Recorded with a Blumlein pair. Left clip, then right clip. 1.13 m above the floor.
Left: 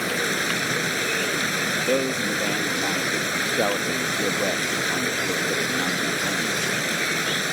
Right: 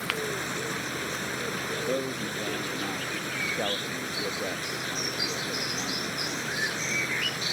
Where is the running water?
65° left.